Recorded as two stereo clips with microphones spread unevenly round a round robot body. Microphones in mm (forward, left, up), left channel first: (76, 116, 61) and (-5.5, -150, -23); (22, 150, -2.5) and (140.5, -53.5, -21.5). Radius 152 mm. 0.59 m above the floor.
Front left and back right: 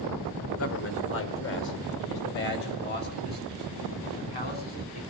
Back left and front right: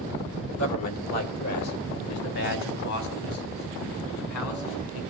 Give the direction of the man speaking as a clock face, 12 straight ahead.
8 o'clock.